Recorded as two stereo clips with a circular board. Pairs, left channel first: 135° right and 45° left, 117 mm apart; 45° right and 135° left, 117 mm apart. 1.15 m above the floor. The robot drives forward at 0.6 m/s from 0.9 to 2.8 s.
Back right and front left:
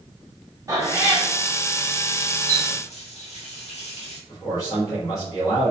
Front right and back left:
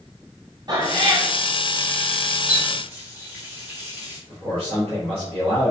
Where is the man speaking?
165° left, 1.5 m.